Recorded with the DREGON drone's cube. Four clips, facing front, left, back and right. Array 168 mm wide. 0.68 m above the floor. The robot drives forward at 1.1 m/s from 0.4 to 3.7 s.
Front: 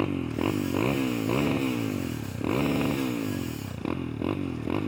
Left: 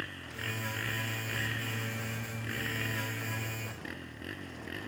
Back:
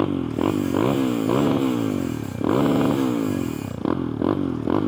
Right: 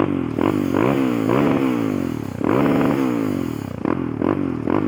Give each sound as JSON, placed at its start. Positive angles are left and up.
{"t": 0.0, "sound": "a motorcycle", "azimuth_deg": -110}